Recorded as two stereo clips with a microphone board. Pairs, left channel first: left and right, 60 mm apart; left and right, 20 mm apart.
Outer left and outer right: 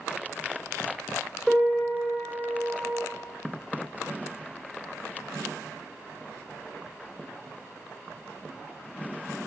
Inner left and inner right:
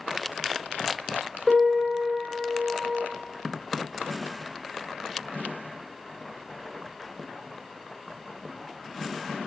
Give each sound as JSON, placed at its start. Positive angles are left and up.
{"t": 1.5, "sound": "a piano", "side_deg": -10, "distance_m": 5.0}